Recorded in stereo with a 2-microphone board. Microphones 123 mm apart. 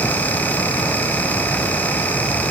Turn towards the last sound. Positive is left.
No sound to turn to.